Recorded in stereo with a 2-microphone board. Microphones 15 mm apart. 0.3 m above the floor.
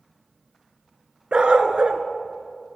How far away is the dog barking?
About 1.4 m.